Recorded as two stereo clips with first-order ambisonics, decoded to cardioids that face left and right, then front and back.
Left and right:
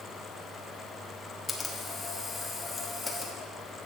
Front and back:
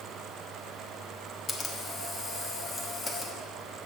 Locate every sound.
1.5 s a camera shutter: 35° left, 1.2 m